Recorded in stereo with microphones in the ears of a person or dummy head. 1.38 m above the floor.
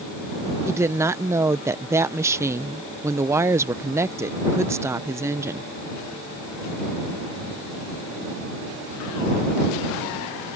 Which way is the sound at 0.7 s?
15° right (ahead or behind).